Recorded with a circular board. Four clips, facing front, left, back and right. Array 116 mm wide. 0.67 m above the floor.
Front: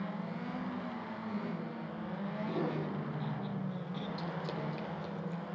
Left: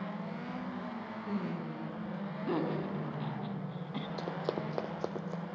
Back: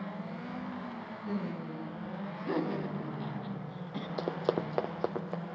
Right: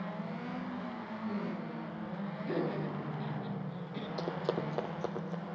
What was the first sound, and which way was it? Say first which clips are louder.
Laughter: left 1 dB, back 4 dB; 130° left.